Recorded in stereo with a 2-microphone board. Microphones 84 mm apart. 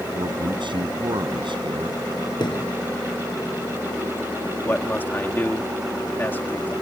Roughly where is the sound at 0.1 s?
Right.